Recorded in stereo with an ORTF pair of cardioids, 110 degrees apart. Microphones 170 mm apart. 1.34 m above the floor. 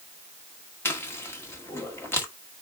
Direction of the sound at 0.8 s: 15° left.